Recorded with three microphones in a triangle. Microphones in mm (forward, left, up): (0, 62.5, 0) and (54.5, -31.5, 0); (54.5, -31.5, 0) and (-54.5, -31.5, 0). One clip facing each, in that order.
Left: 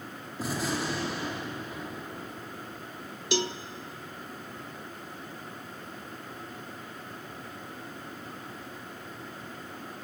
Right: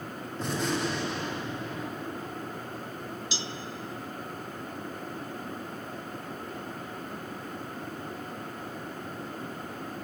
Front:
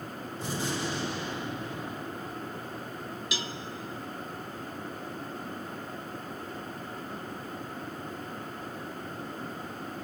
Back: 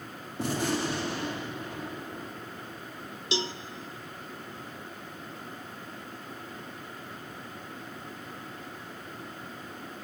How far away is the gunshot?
About 3 m.